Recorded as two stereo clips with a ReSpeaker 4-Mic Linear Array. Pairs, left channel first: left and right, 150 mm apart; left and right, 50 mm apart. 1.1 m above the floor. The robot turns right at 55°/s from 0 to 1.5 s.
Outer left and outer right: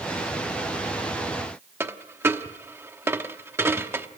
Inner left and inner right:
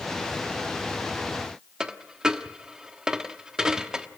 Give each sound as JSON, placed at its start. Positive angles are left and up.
{"t": 1.8, "sound": "a dropped coin", "side_deg": -15, "distance_m": 1.0}